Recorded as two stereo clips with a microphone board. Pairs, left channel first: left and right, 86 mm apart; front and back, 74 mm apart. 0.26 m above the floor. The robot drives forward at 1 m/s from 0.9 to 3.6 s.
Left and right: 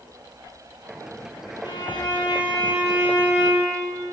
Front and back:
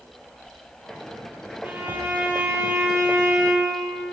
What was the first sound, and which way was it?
A violin, 115° left.